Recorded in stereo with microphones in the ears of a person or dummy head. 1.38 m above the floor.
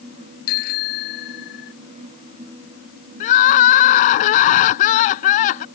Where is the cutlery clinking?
No cutlery clinking in this recording.